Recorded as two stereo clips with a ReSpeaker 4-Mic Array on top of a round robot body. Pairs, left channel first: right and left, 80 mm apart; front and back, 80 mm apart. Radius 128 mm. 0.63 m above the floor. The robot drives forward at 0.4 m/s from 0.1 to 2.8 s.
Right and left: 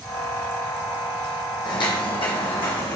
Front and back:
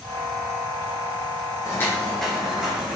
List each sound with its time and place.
1.6 s footsteps: 55° right, 1.7 m; by 3.0 s 105° right, 2.5 m